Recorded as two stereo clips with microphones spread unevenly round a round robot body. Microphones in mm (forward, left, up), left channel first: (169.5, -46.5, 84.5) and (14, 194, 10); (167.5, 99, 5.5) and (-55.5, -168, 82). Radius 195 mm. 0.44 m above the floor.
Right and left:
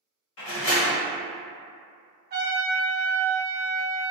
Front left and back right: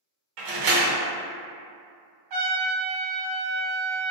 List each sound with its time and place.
0.4 s a door slam: 110° right, 1.0 m
2.3 s a trumpet: 170° right, 0.8 m